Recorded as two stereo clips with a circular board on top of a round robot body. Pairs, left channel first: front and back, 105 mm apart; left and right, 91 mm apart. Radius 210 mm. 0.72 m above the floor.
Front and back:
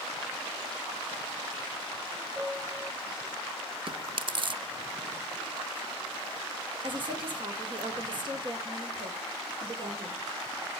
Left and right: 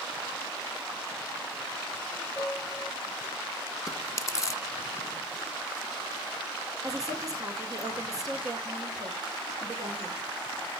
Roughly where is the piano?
Behind.